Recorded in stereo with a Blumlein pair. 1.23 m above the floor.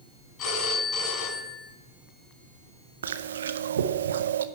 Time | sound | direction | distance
0.4 | a phone ringing | 30° left | 5 m
3.0 | chewing | 65° right | 0.6 m